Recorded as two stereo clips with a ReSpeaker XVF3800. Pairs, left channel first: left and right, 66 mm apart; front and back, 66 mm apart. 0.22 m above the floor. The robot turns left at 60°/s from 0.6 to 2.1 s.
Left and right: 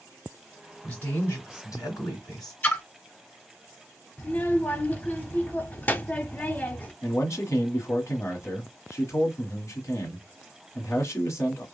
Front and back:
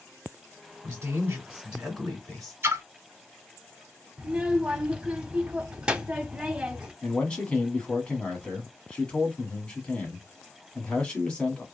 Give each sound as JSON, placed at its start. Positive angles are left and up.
{"t": 0.8, "sound": "a woman speaking", "azimuth_deg": 160, "distance_m": 2.0}
{"t": 2.6, "sound": "a splash", "azimuth_deg": 145, "distance_m": 0.8}
{"t": 4.2, "sound": "a child speaking", "azimuth_deg": 125, "distance_m": 0.6}
{"t": 7.0, "sound": "a man speaking", "azimuth_deg": 70, "distance_m": 1.4}